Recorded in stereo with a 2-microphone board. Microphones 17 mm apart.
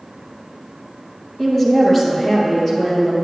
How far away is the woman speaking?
About 1.6 m.